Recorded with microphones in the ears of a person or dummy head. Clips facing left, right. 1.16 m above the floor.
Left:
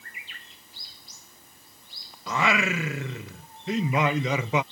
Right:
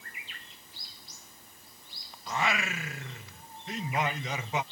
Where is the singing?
55° left (ahead or behind).